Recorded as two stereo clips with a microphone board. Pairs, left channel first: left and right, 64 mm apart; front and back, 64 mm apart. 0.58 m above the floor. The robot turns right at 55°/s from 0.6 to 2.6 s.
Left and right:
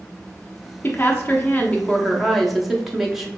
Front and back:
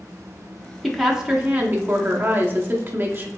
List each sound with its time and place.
0.8 s a woman speaking: 90° left, 0.8 m; by 3.3 s 175° right, 0.8 m